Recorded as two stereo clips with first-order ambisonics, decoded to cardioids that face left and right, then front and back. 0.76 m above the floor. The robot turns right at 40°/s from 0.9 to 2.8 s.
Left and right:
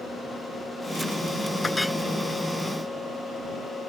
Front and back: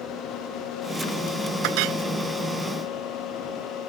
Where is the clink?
165° left; by 2.0 s straight behind.